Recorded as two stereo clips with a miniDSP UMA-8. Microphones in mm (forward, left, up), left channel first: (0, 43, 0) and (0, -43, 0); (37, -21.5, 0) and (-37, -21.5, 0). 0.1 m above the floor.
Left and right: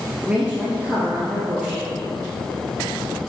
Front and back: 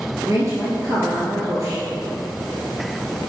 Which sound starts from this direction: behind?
A woman speaking, at 0.2 s.